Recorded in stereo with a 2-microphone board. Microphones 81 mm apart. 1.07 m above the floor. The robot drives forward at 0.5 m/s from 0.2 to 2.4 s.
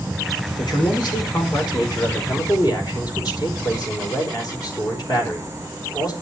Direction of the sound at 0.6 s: 60° left (ahead or behind).